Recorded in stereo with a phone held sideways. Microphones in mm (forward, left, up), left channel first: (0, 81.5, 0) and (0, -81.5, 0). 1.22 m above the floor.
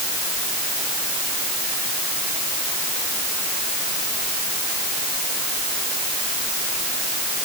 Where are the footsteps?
I don't hear footsteps.